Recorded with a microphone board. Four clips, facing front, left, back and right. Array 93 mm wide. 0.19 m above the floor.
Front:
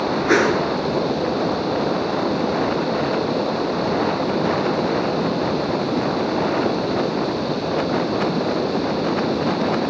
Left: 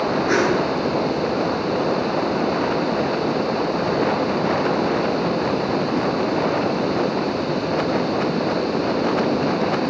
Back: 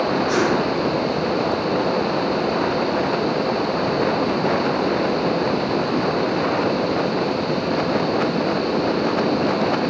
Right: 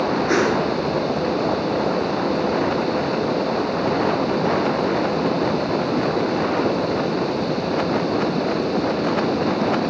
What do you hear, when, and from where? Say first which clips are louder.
0.3 s a whoosh: left 1 dB, front 5 dB; straight ahead, 1.1 m